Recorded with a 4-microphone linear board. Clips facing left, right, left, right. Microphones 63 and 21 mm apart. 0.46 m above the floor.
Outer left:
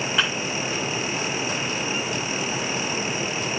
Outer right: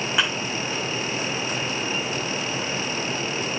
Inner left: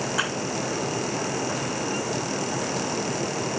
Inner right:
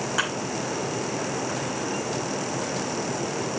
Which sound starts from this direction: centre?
A thud, at 0.2 s.